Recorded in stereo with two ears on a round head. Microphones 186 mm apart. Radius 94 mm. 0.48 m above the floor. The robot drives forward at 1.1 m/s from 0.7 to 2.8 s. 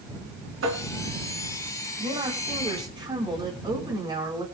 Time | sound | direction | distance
0.6 | tapping | 65° right (ahead or behind) | 3.5 m
2.0 | a woman speaking | 25° right (ahead or behind) | 4.5 m